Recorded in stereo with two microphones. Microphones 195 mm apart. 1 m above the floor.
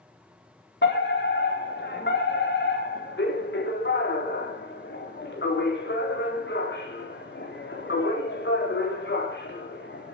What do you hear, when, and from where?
0.8 s a fire alarm: 65° left (ahead or behind), 4 m